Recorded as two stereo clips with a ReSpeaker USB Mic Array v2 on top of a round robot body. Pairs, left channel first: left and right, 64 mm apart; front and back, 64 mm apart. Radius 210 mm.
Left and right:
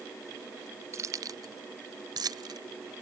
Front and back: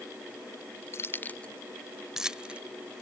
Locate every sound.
0.9 s keys jangling: 45° right; by 2.6 s 110° right